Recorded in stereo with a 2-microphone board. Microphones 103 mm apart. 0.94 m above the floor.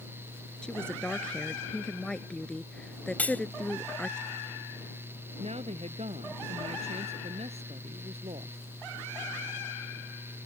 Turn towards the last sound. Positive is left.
turn(degrees=-85)